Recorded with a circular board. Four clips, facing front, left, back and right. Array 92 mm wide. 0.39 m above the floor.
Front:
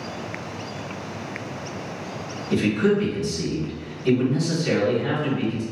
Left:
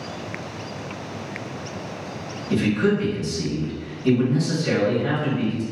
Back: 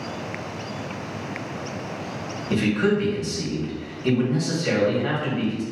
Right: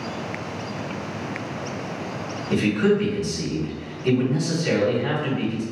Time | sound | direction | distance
2.5 | a man speaking | 155° right | 1.7 m